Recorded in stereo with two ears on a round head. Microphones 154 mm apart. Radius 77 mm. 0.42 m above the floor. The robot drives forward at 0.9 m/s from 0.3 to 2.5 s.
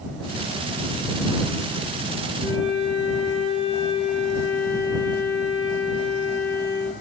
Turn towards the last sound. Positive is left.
turn(degrees=-10)  # may be behind; listen again after turning